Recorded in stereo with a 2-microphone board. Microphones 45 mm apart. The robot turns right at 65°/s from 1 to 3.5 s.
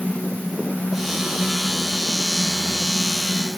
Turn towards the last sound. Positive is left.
No sound to turn to.